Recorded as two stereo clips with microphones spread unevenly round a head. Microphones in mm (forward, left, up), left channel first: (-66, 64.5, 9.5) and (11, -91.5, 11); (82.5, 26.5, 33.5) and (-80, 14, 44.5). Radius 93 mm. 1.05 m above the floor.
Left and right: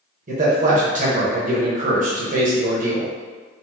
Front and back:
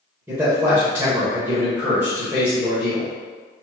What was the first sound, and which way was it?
A man speaking, 95° right.